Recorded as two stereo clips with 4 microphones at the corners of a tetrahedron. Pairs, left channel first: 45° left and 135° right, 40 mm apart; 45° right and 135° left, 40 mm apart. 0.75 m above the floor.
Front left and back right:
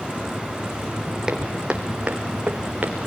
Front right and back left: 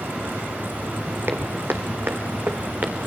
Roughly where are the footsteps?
Behind left.